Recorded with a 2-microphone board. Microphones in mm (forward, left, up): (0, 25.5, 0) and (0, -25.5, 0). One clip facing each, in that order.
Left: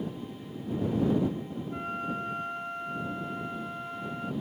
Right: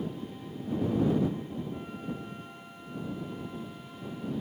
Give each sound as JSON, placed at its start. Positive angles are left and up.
{"t": 1.7, "sound": "a flute", "side_deg": 70}